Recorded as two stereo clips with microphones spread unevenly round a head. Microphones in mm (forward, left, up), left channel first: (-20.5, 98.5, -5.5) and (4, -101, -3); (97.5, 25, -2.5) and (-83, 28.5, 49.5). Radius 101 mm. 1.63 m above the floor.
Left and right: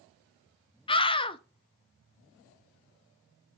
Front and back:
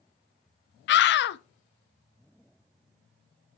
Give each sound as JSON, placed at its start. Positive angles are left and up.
{"t": 0.9, "sound": "a scream", "azimuth_deg": 30, "distance_m": 0.6}